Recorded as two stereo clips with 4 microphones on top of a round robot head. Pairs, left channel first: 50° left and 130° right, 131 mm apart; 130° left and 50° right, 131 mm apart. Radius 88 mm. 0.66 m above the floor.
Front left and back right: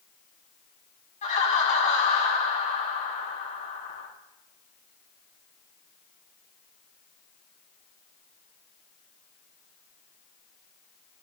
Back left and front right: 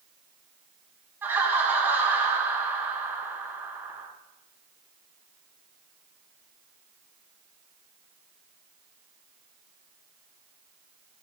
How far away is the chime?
I don't hear a chime.